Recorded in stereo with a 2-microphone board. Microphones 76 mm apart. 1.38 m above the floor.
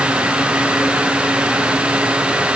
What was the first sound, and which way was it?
Only background noise.